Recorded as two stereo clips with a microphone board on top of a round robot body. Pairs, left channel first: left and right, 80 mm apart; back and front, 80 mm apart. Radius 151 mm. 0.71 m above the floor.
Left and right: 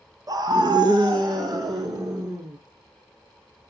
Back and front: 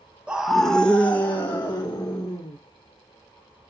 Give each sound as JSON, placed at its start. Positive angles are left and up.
{"t": 0.3, "sound": "a scream", "azimuth_deg": -75, "distance_m": 1.2}